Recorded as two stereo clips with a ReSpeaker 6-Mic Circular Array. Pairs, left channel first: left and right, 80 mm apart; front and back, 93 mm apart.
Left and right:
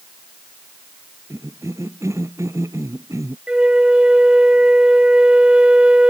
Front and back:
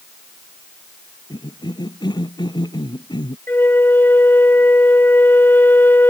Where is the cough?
40° right.